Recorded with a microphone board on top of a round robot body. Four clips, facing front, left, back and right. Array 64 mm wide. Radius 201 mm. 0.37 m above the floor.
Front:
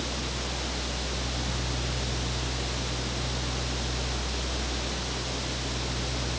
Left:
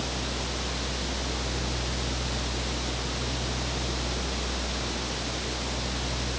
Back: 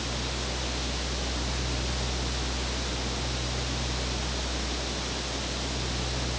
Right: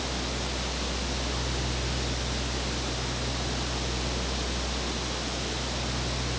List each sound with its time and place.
Only background noise.